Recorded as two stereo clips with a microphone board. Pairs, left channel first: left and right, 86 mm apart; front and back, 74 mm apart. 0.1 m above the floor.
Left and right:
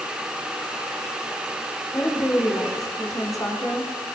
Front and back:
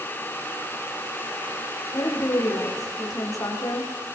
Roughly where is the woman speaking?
Ahead left.